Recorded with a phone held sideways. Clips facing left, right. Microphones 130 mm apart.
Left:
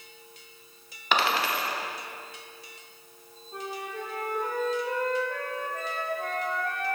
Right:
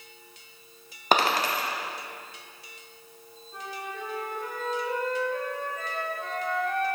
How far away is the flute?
About 1.3 m.